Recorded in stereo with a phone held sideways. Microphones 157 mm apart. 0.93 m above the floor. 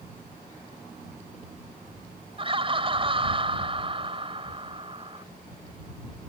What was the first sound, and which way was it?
Laughter, 35° right (ahead or behind).